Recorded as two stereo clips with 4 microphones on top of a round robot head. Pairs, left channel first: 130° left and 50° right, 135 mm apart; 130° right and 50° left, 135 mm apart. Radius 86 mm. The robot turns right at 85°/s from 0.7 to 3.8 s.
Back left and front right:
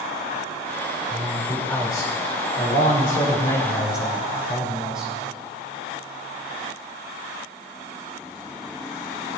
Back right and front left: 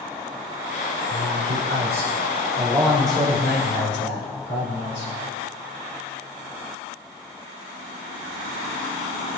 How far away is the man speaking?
About 5.5 m.